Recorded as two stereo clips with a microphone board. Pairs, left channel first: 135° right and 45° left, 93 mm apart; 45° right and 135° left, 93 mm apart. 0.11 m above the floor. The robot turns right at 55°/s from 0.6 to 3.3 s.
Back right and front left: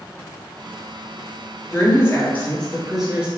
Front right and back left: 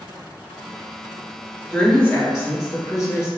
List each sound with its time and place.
1.7 s a woman speaking: 110° right, 1.3 m; by 3.3 s 25° right, 1.3 m